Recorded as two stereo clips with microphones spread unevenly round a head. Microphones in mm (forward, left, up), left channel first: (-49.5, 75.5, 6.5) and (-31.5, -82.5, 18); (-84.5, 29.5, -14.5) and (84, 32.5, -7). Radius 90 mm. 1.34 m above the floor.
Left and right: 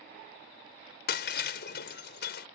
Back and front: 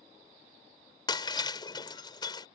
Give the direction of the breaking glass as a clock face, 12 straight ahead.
8 o'clock.